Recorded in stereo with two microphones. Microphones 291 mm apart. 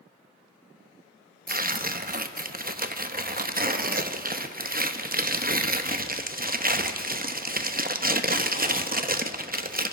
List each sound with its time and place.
1.5 s tearing paper: 30° right (ahead or behind), 0.6 m